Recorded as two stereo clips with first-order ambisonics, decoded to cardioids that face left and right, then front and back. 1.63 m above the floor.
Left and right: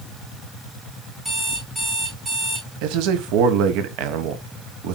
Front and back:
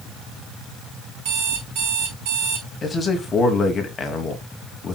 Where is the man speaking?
75° right, 1.3 m.